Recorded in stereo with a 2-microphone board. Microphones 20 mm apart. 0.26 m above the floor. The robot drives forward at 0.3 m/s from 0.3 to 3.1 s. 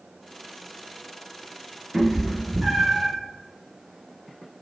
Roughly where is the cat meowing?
Right.